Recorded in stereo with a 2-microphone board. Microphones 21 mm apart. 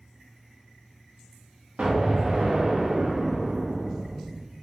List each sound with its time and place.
1.8 s an explosion: 80° right, 0.6 m